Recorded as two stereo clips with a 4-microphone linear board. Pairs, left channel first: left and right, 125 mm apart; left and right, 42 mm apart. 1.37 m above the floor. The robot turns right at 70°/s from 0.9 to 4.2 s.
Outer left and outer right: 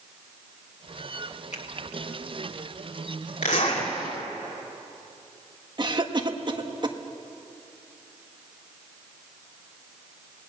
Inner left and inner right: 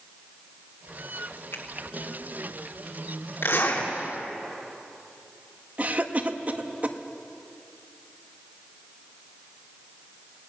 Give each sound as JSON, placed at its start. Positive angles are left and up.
{"t": 1.5, "sound": "a finger snap", "side_deg": 70, "distance_m": 2.0}
{"t": 3.4, "sound": "a zipper", "azimuth_deg": 85, "distance_m": 3.5}
{"t": 5.8, "sound": "a cough", "side_deg": -40, "distance_m": 1.6}